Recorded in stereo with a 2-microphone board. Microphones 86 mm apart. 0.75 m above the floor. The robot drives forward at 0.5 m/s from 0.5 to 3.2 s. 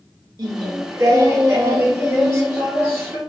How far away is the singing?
About 1.0 m.